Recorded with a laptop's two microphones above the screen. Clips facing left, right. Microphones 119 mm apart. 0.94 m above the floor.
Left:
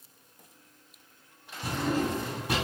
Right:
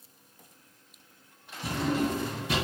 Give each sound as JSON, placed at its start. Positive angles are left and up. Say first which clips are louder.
{"t": 1.6, "sound": "a drawer", "louder": "right 1 dB", "side_deg": 50, "distance_m": 1.9}